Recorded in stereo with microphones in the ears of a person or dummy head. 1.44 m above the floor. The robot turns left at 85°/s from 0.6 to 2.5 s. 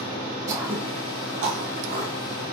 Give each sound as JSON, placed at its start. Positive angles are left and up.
{"t": 0.5, "sound": "throat clearing", "side_deg": -20, "distance_m": 0.9}